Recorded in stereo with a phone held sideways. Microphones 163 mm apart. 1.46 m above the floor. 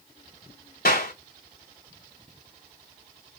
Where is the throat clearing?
I don't hear throat clearing.